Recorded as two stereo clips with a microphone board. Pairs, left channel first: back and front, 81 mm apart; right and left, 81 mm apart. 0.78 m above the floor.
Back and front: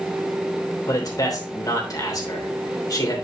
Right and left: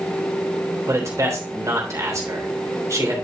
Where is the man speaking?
140° left, 3 m.